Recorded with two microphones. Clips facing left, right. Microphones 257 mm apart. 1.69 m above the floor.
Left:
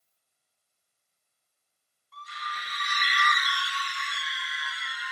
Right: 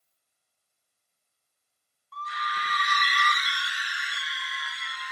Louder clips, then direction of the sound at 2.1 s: Right 6 dB; 65° right (ahead or behind).